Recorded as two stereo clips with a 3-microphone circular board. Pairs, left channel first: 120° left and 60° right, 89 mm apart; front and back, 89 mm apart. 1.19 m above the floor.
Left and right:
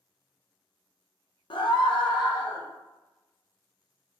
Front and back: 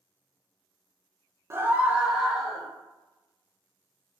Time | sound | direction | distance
1.5 | a scream | 125° left | 0.5 m